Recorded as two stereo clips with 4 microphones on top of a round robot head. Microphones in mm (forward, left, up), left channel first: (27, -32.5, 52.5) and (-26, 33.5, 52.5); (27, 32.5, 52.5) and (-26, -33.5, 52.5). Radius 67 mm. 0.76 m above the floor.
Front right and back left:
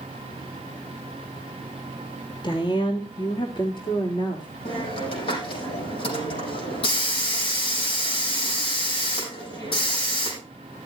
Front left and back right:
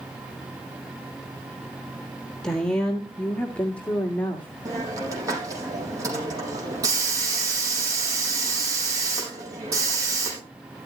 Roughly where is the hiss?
Right.